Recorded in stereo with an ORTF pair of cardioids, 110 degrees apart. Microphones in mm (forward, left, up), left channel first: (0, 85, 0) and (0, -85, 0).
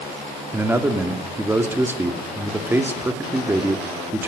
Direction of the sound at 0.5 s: 15° right.